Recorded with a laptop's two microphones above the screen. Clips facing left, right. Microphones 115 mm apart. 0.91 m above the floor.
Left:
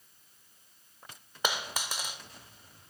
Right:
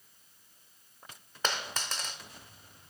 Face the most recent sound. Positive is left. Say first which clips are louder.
# left 1 dB
turn(degrees=10)  # may be behind; listen again after turning